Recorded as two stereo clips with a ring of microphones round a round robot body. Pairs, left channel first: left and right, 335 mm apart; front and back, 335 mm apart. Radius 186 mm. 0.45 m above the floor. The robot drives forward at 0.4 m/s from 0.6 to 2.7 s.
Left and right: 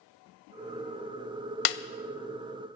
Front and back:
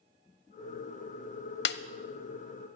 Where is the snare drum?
60° left, 0.6 m; by 1.8 s 65° left, 0.6 m.